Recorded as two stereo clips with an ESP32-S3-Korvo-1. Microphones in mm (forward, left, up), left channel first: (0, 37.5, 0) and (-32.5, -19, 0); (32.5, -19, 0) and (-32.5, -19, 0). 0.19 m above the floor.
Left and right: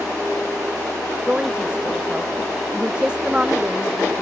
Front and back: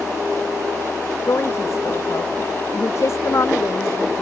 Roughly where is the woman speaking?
Ahead right.